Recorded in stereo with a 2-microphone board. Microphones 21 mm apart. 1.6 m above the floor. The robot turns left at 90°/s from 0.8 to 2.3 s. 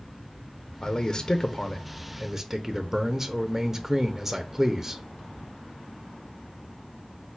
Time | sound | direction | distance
0.8 | a man speaking | 115° left | 0.5 m